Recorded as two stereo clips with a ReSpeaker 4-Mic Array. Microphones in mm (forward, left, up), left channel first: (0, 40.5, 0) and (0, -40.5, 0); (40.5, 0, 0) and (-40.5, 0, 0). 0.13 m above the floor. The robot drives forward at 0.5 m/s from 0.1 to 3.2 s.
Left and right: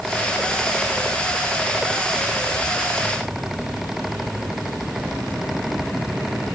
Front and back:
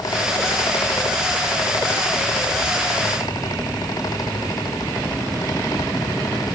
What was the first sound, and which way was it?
Only background noise.